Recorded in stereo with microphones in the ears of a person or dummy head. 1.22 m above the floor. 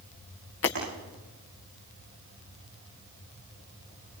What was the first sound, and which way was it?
Breaking glass, 65° left (ahead or behind).